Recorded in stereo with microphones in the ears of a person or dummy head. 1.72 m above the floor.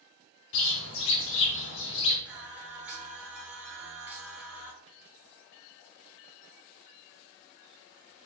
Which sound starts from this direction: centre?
Singing, at 2.2 s.